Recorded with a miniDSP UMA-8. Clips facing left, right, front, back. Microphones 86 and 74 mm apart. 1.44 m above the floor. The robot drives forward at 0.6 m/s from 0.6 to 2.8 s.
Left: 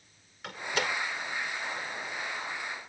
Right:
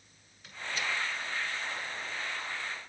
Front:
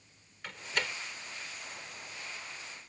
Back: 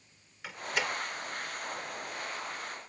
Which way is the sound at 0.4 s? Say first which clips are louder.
Left 4 dB, back 3 dB; 95° left.